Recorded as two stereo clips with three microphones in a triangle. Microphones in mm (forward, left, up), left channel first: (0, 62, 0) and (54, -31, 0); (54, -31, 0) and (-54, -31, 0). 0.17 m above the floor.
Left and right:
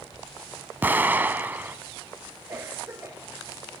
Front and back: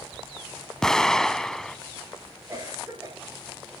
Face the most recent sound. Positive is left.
turn(degrees=-120)